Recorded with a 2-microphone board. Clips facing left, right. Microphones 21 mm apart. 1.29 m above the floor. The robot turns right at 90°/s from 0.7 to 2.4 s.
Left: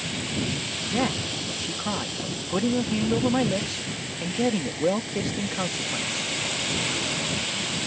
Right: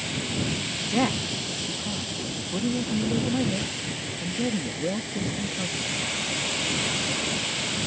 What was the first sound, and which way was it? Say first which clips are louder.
A man speaking: right 1 dB; 15° right.